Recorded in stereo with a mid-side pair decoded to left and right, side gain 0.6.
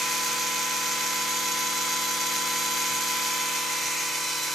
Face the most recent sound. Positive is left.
turn(degrees=-25)